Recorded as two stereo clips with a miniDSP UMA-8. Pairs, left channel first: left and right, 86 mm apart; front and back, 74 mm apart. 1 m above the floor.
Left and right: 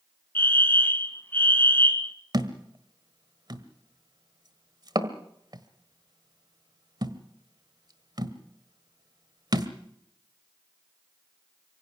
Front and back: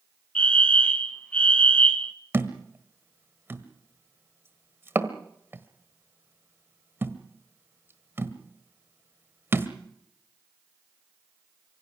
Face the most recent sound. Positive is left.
turn(degrees=-120)